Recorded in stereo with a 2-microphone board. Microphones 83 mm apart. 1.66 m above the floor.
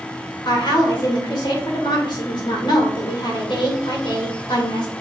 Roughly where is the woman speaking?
Left.